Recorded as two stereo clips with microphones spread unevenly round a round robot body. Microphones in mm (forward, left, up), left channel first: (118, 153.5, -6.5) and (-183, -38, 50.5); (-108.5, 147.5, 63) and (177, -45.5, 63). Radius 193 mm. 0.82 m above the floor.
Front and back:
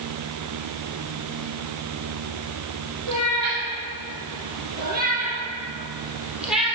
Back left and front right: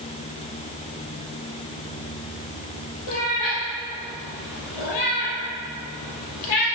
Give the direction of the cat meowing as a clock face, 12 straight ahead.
6 o'clock.